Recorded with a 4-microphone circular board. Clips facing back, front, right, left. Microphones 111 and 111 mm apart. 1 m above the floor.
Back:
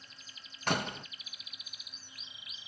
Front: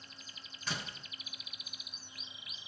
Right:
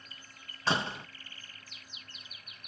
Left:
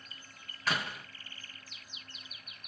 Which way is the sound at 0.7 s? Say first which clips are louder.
Back 10 dB, right 4 dB; 150° right.